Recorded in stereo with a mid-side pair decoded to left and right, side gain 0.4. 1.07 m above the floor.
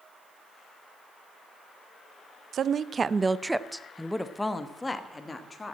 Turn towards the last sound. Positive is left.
turn(degrees=30)